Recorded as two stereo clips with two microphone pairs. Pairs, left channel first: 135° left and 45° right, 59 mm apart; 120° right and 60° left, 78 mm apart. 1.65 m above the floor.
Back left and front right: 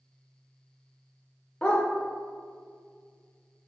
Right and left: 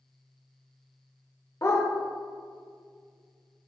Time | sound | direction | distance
1.6 | a dog barking | 160° right | 2 m